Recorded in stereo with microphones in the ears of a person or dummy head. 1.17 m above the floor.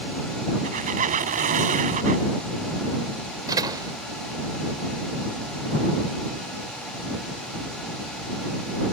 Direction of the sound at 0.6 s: 35° right (ahead or behind).